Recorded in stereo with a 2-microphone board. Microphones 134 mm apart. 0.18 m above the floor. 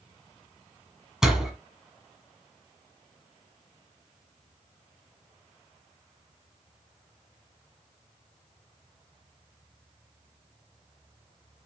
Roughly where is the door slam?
Centre.